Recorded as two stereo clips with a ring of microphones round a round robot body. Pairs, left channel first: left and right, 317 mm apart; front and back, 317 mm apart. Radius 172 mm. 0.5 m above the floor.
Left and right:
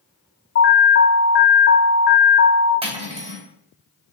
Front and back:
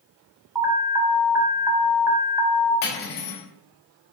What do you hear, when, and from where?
0.6 s an alarm: 105° left, 0.6 m
2.8 s cutlery clinking: 15° right, 1.6 m